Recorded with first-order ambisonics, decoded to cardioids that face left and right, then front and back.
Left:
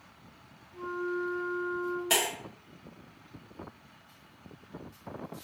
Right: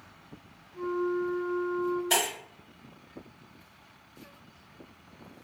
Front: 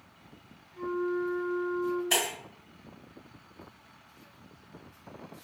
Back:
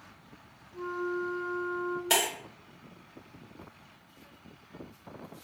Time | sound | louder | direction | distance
0.7 | a flute | right 4 dB, front 2 dB | 150° left | 1.7 m
2.1 | breaking glass | even, back 2 dB | 155° left | 1.5 m